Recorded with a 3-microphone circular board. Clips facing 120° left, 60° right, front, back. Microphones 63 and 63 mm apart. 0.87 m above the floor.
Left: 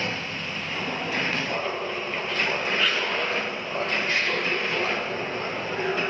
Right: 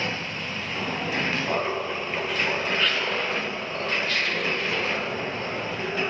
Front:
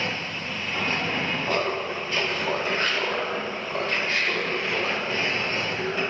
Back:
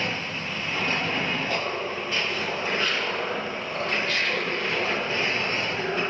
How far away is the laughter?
About 1.7 m.